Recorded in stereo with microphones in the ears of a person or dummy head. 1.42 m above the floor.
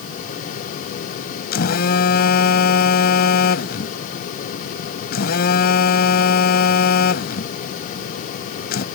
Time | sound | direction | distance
1.5 | a phone buzzing | 55° left (ahead or behind) | ?